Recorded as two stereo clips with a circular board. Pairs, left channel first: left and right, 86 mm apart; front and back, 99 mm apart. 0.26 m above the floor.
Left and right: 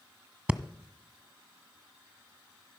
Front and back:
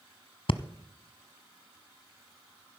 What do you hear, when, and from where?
0.5 s breathing: 15° right, 0.6 m